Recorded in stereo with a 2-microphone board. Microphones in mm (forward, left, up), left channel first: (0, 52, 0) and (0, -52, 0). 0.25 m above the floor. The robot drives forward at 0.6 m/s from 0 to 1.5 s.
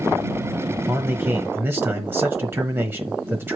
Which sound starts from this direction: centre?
A man speaking, at 0.9 s.